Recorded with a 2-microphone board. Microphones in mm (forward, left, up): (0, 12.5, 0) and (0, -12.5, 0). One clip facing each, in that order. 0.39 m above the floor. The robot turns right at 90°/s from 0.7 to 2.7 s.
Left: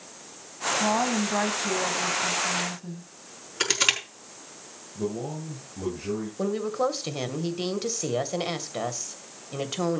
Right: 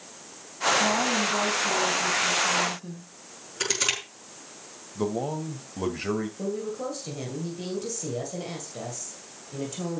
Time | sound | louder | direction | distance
0.8 | a woman speaking | right 1 dB | 10° left | 2.5 m
3.6 | crushing | left 3 dB | 25° left (ahead or behind) | 5 m
5.0 | a man speaking | right 3 dB | 55° right (ahead or behind) | 2 m
6.4 | a woman speaking | left 5 dB | 55° left (ahead or behind) | 2 m